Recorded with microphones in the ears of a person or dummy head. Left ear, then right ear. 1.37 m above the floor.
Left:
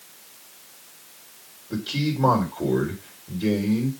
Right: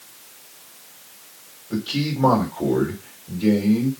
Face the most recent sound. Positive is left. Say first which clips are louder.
# right 2 dB
turn(degrees=10)  # may be behind; listen again after turning